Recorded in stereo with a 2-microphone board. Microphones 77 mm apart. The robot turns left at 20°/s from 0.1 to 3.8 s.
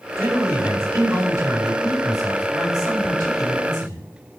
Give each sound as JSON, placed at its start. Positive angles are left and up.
{"t": 0.2, "sound": "a man speaking", "azimuth_deg": -40, "distance_m": 2.5}